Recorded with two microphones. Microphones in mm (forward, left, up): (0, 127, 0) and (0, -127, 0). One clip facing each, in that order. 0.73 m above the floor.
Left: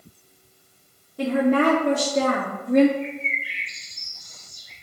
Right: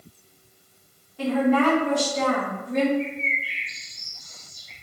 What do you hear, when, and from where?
1.2 s a woman speaking: 50° left (ahead or behind), 1.5 m; by 2.9 s 60° left (ahead or behind), 0.9 m
3.0 s a bird: 15° left (ahead or behind), 2.5 m